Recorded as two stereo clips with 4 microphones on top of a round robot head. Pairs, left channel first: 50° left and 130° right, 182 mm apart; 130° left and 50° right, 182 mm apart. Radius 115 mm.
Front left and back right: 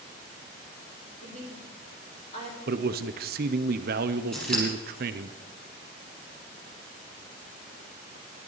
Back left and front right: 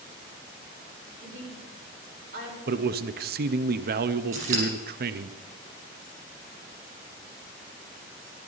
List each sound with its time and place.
1.2 s a woman speaking: 10° right, 4.5 m
2.7 s a man speaking: 85° right, 0.5 m
4.3 s scissors: 35° right, 6 m